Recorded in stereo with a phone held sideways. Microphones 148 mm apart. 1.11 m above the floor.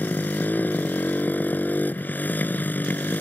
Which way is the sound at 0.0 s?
10° left (ahead or behind).